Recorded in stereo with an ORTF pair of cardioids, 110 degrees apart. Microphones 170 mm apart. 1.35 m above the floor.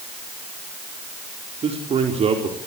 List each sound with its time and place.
1.6 s a man speaking: 40° right, 4 m